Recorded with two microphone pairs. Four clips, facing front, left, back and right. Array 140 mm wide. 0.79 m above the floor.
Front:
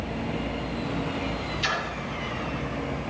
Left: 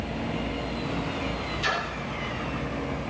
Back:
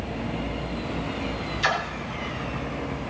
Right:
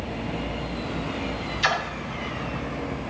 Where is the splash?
135° right, 2 m.